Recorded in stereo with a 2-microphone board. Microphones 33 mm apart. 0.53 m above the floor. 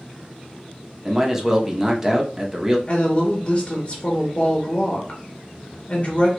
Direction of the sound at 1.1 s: 15° right (ahead or behind).